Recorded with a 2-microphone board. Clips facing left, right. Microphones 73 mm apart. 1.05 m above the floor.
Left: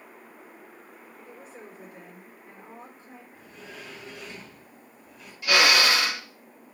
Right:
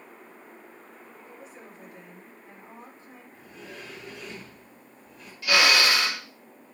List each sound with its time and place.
1.2 s a woman speaking: 35° left (ahead or behind), 5 m
3.3 s a sliding door: 5° left (ahead or behind), 4 m
5.4 s a drill: 15° left (ahead or behind), 5.5 m